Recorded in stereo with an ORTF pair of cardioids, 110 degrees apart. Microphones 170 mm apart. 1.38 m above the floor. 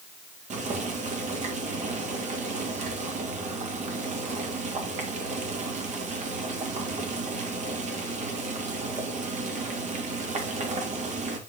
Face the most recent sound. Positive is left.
turn(degrees=-45)